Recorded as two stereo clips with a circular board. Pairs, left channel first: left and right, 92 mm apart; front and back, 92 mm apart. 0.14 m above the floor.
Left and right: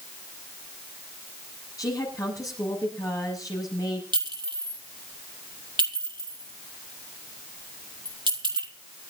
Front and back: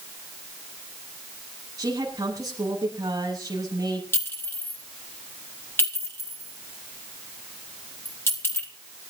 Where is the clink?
60° right, 4 m.